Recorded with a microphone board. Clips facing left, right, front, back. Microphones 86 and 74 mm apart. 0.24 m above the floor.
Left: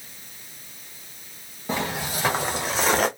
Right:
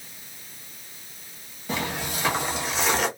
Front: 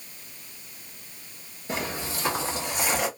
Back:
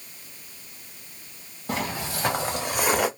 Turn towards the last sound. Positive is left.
turn(degrees=140)